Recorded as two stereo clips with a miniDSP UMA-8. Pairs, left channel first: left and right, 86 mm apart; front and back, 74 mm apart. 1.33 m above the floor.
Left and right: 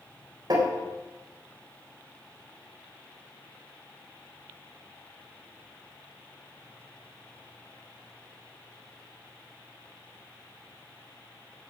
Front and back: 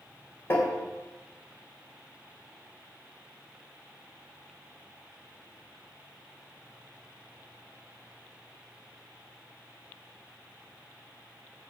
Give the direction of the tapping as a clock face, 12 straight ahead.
2 o'clock.